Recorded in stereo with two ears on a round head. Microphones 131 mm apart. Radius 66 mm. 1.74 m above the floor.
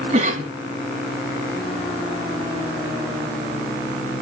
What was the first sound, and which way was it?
A cough, 55° right (ahead or behind).